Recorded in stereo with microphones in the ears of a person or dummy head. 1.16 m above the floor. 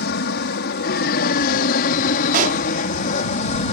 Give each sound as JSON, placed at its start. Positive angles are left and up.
{"t": 0.0, "sound": "an aircraft", "side_deg": 55}
{"t": 2.3, "sound": "a pop", "side_deg": -45}